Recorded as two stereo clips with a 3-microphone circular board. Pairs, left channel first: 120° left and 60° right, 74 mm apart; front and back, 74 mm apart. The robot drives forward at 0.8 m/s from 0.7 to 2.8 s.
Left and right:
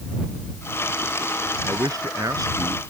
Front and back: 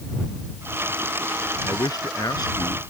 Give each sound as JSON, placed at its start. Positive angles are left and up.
{"t": 1.6, "sound": "a man speaking", "azimuth_deg": -25}